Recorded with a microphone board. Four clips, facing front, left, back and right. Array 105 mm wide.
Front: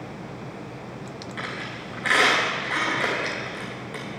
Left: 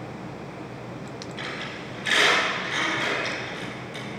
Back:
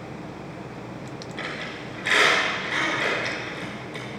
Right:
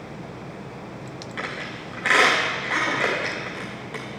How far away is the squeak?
About 3.5 m.